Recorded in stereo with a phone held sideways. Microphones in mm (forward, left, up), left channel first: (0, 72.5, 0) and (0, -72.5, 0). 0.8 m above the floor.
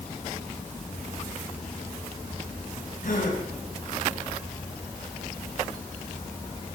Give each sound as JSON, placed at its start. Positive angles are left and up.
{"t": 3.0, "sound": "a gasp", "side_deg": 75, "distance_m": 3.5}